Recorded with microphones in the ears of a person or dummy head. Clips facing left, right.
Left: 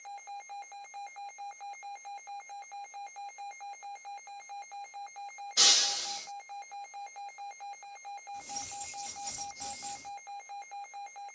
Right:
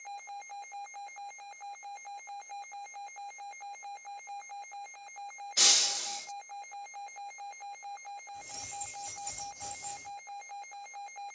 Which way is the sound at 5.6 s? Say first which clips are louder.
Left 2 dB; 5° left (ahead or behind).